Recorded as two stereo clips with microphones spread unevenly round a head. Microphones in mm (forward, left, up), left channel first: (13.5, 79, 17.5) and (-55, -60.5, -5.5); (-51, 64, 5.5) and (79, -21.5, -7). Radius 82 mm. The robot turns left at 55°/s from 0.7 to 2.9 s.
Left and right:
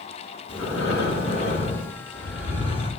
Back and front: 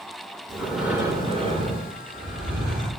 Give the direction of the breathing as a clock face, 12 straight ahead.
10 o'clock.